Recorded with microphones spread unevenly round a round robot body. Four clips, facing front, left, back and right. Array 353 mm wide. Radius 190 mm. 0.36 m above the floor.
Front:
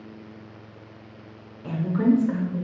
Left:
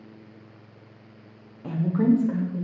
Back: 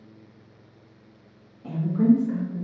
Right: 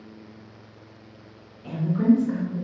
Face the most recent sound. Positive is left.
turn(degrees=0)